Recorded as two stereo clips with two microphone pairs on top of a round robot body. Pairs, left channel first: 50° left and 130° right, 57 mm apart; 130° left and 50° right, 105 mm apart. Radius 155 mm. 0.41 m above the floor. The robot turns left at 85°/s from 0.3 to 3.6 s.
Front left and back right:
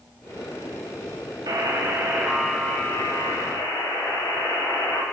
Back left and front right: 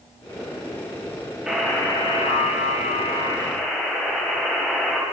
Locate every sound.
1.5 s a buzzer: 135° right, 1.6 m; by 5.0 s 45° left, 1.6 m